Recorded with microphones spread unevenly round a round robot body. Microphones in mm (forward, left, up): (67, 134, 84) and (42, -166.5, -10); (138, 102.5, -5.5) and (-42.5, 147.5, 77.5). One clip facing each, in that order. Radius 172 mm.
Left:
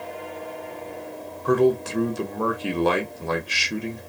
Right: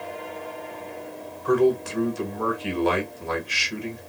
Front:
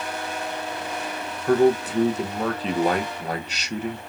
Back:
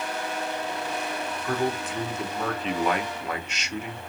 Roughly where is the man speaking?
Ahead left.